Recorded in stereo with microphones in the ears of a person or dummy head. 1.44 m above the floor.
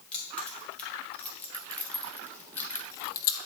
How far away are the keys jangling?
About 2.5 m.